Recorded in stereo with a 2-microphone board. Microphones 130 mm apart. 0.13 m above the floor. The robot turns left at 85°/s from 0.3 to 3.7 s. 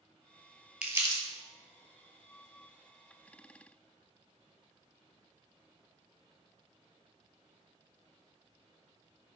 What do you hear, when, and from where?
0.8 s crumpling: 10° right (ahead or behind), 0.5 m; by 1.2 s 40° right (ahead or behind), 0.5 m